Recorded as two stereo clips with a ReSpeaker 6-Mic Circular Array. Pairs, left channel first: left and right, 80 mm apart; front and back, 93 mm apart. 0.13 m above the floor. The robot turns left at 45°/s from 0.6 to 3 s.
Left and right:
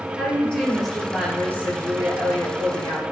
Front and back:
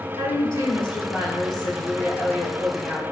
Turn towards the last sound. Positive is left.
turn(degrees=-95)